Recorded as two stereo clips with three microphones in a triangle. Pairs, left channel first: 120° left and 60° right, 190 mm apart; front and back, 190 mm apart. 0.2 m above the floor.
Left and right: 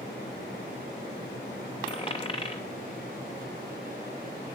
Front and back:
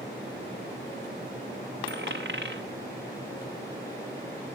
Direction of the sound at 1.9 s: Straight behind.